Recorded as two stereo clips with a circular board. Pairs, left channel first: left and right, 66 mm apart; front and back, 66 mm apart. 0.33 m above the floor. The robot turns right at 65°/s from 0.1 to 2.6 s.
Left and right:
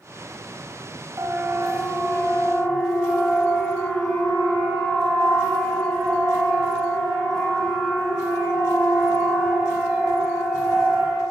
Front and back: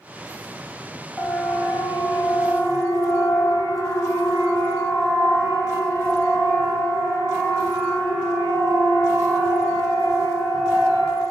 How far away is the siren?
About 2.5 m.